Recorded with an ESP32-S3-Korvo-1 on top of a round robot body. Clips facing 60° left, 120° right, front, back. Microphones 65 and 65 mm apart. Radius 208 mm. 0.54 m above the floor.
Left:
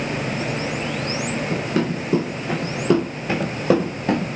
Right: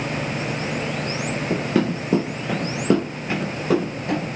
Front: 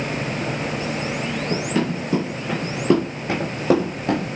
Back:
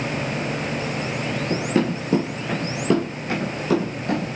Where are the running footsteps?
130° right, 0.9 m; by 4.2 s 40° left, 0.8 m.